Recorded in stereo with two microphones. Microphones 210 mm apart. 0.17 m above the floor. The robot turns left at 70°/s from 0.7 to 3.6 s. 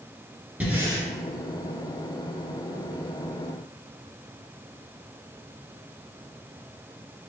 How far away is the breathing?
About 1.5 m.